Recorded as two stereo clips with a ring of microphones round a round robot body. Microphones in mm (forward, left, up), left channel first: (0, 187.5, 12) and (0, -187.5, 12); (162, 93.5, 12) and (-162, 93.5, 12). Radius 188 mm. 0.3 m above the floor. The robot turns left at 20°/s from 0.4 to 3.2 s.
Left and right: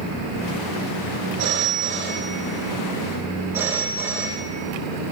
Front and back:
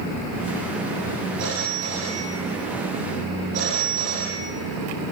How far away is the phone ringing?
About 6 m.